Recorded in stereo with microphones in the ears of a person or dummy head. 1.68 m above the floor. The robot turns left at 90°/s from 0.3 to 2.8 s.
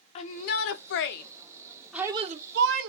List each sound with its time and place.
0.1 s a shout: 145° left, 0.7 m; by 2.9 s 80° right, 0.7 m